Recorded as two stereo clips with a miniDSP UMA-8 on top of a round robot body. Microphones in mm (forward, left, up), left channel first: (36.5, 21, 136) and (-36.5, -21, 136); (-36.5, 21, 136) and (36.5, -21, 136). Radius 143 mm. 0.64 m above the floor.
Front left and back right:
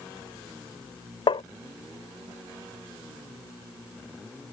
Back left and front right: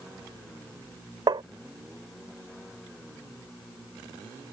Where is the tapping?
10° left.